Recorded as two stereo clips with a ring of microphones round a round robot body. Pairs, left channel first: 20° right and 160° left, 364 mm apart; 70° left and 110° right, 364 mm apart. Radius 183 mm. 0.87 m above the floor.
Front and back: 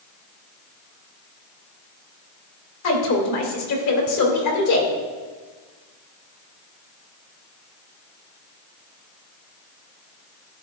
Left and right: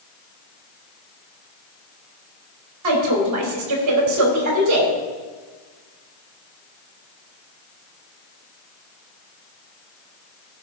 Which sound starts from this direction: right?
A woman speaking, at 2.8 s.